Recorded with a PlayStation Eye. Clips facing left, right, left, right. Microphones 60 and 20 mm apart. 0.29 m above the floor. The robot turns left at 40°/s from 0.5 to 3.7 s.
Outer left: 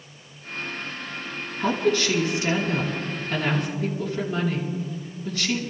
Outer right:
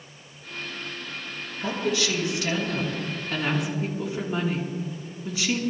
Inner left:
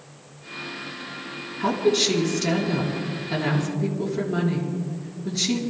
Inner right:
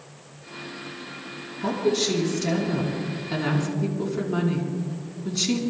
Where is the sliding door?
No sliding door in this recording.